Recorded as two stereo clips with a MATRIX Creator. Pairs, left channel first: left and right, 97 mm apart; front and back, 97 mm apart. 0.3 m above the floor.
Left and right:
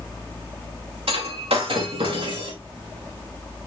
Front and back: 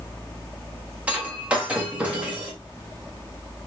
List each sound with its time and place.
1.1 s breaking glass: 100° right, 5 m